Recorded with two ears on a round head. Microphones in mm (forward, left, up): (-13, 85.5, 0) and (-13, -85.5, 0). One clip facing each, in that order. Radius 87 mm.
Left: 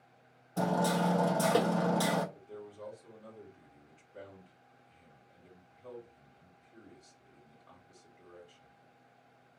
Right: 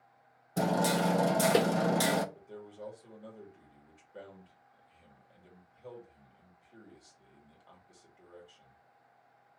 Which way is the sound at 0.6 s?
20° right (ahead or behind).